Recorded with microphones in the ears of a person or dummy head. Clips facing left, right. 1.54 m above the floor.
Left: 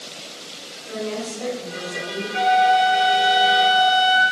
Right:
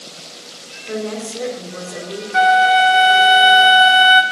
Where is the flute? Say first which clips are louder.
Right 3 dB; 60° right (ahead or behind), 0.9 m.